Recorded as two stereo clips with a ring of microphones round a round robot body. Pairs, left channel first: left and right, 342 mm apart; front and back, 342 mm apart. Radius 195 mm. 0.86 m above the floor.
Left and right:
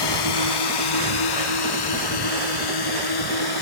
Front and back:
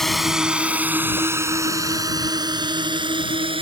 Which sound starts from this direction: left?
A drone, at 0.0 s.